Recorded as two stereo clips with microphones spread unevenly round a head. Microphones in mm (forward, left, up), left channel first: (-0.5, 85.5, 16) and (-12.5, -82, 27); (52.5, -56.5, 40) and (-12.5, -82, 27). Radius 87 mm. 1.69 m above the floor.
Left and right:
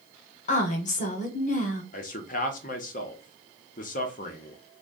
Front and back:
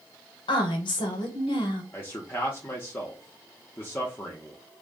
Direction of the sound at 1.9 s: 65° left.